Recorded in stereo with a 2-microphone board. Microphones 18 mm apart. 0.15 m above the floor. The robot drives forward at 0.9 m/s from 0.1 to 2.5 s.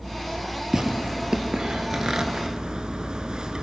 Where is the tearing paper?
30° right (ahead or behind), 2.5 m; by 3.6 s 50° right (ahead or behind), 1.5 m.